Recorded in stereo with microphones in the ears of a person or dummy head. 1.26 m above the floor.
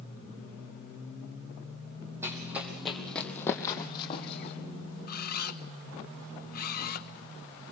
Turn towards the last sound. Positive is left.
turn(degrees=50)  # may be behind; listen again after turning